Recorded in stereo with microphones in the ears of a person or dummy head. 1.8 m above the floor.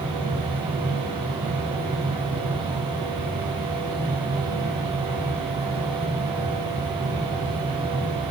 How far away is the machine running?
About 5 m.